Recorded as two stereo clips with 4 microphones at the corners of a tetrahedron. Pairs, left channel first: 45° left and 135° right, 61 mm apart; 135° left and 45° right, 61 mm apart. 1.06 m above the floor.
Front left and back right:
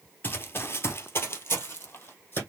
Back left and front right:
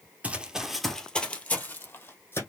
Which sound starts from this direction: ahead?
Running footsteps, at 0.2 s.